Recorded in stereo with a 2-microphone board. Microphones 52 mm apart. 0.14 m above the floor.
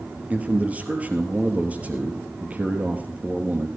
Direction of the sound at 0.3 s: 25° right (ahead or behind).